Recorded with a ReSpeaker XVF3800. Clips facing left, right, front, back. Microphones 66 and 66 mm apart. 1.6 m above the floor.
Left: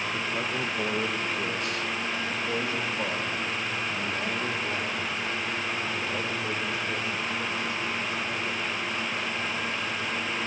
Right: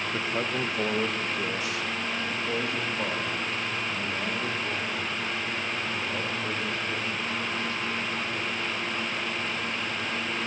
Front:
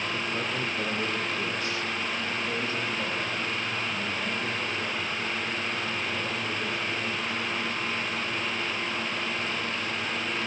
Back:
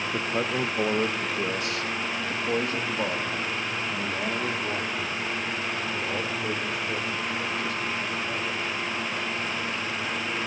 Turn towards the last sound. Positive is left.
turn(degrees=165)